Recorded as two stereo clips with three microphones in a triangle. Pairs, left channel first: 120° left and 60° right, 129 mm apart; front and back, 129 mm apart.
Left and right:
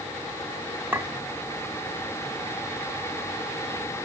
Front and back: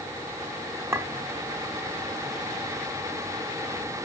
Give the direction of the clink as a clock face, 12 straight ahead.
4 o'clock.